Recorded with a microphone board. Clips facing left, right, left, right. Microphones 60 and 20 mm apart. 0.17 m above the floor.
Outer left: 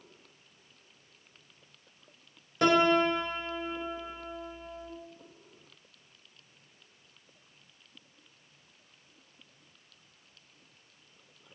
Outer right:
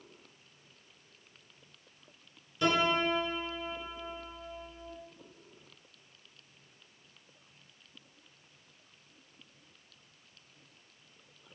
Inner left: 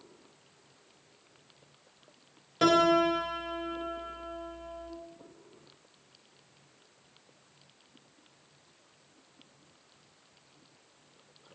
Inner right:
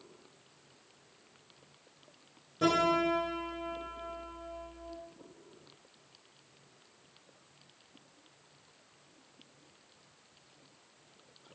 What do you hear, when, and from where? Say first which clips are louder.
2.6 s a piano: outer left 5 dB, inner left 4 dB; 65° left (ahead or behind), 0.5 m